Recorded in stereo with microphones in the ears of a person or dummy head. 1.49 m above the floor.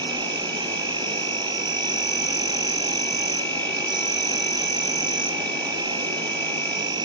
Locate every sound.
0.0 s an insect: 25° right (ahead or behind)